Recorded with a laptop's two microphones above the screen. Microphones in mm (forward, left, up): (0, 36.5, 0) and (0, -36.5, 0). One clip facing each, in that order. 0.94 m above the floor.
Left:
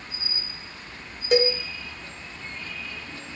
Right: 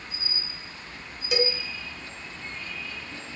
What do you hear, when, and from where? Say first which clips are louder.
1.3 s a cowbell: left 6 dB; 45° left (ahead or behind), 0.6 m